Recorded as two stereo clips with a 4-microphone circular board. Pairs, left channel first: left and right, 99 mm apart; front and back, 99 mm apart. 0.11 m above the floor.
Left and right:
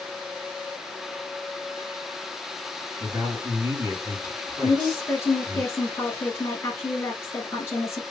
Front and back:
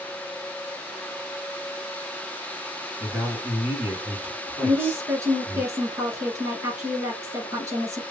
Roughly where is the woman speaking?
Behind left.